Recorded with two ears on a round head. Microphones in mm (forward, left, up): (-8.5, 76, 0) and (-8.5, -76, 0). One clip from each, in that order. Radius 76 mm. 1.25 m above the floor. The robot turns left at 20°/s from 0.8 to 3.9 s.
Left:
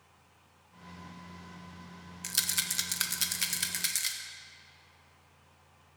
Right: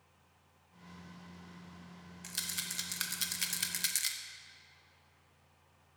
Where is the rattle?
20° left (ahead or behind), 0.5 m; by 4.2 s 5° right (ahead or behind), 0.5 m.